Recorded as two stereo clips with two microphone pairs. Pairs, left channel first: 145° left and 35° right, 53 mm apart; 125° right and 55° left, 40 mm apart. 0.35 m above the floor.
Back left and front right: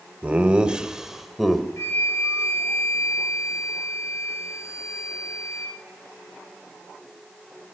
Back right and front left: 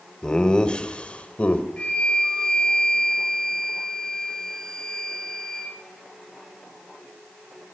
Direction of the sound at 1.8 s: 175° left.